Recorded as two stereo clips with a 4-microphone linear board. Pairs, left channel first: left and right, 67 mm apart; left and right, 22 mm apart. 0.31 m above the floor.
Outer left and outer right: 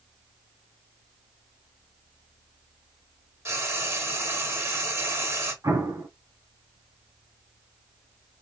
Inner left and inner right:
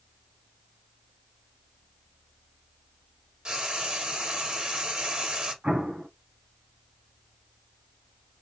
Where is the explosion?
70° right (ahead or behind), 2.5 m.